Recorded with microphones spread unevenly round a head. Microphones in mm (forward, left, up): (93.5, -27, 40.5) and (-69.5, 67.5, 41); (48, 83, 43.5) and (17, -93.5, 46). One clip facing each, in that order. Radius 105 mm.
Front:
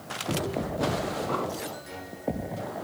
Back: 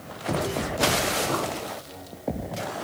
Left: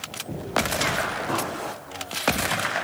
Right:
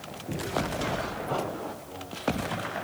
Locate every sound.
1.3 s an explosion: 85° left, 4.5 m